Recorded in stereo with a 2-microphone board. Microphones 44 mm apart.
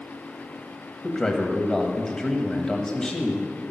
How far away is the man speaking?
About 1.3 m.